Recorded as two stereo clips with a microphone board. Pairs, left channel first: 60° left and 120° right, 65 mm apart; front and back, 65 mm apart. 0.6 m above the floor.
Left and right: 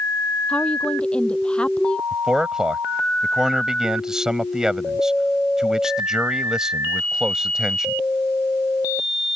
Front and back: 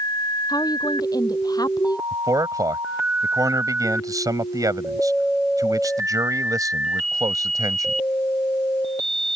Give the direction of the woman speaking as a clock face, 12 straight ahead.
12 o'clock.